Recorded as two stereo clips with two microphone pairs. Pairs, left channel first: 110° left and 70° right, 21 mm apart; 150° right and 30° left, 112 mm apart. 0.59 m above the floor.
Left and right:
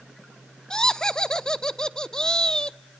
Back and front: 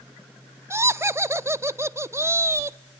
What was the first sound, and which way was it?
Laughter, 80° left.